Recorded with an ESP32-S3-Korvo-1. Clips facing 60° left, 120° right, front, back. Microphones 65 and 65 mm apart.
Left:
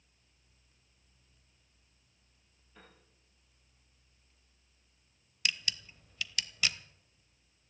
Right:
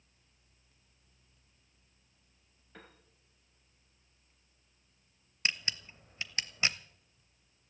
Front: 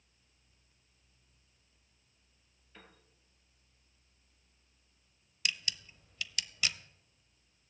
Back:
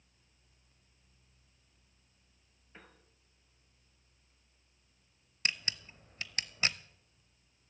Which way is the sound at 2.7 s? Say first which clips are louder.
Right 4 dB, back 1 dB; 115° right.